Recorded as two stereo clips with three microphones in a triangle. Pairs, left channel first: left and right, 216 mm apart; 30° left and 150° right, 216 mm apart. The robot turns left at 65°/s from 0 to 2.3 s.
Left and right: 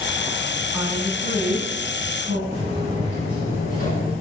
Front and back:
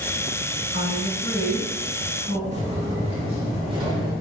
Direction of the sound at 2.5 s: 155° left.